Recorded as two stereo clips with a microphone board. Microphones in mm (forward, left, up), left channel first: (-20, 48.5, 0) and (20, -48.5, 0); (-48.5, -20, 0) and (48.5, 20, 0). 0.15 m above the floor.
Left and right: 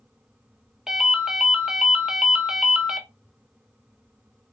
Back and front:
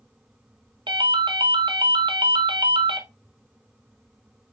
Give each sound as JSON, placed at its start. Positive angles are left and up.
{"t": 0.9, "sound": "a ringtone", "azimuth_deg": 15, "distance_m": 0.6}